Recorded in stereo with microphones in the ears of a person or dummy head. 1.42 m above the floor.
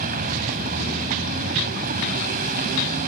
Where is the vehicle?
50° right (ahead or behind).